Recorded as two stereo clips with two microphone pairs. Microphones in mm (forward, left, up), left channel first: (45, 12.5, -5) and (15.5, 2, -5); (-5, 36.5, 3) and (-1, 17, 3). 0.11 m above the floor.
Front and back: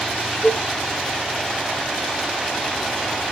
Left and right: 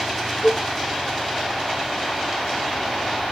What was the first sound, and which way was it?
A cowbell, 60° left.